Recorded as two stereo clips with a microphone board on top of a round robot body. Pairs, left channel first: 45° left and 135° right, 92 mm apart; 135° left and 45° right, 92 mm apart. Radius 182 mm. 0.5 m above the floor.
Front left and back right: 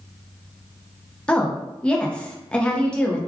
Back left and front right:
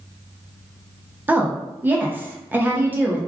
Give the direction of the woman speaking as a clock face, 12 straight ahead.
1 o'clock.